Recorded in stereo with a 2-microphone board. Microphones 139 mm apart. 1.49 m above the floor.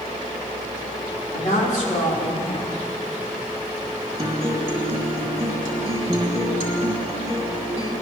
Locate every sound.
1.3 s a woman speaking: 70° left (ahead or behind), 3.5 m
4.2 s a guitar: 40° right (ahead or behind), 2.5 m